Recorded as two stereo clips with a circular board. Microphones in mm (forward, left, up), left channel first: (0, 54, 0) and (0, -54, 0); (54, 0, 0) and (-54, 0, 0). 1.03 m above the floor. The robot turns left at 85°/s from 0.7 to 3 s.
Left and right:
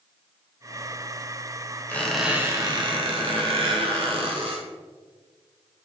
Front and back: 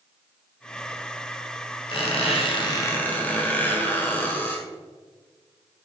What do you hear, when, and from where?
1.9 s a squeak: 25° left, 1.2 m; by 4.7 s 70° right, 1.2 m